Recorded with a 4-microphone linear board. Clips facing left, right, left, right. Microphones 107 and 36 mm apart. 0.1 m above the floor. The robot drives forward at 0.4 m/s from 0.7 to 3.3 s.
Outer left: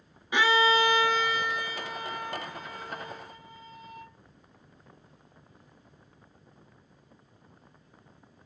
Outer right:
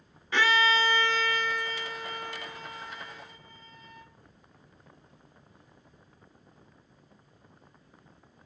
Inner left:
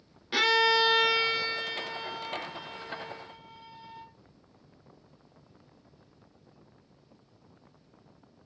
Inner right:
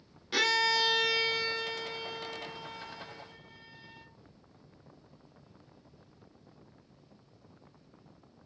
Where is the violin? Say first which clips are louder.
Outer left 2 dB, inner left 4 dB; 15° left (ahead or behind), 0.6 m; by 4.1 s 5° left (ahead or behind), 1.4 m.